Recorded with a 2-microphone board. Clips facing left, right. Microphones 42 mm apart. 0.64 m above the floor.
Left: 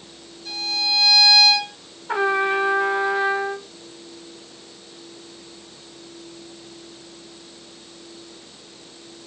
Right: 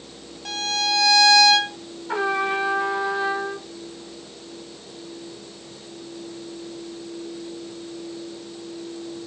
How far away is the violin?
About 1.7 m.